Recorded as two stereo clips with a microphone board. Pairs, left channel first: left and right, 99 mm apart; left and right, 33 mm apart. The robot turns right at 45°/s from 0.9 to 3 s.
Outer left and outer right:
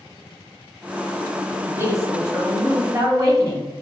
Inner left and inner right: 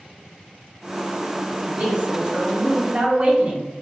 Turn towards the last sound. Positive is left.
turn(degrees=-85)